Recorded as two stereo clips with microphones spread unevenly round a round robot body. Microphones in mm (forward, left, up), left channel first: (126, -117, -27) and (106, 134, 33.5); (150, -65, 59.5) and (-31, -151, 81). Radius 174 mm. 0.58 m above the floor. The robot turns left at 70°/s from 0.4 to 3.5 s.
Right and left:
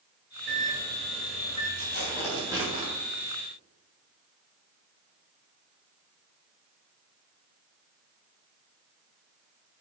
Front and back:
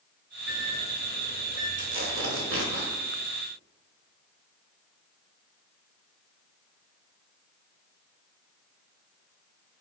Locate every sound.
0.5 s a microwave: 60° left, 2.5 m; by 1.7 s 25° right, 2.5 m
1.8 s tearing paper: 130° right, 2.5 m; by 2.9 s 150° left, 2.5 m